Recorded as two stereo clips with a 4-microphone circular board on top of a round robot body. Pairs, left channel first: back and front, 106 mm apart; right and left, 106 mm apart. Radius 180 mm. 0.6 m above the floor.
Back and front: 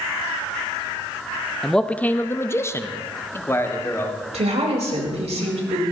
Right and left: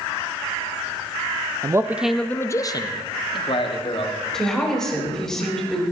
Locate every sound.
1.6 s a man speaking: 95° left, 0.9 m; by 4.2 s 115° right, 2.5 m
4.3 s a woman speaking: 5° right, 4 m